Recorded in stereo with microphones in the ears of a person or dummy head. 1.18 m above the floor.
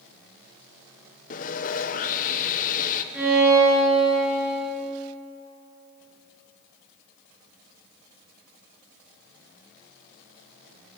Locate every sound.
1.3 s sawing: 35° left (ahead or behind), 0.5 m
3.1 s a violin: centre (ahead or behind), 4.5 m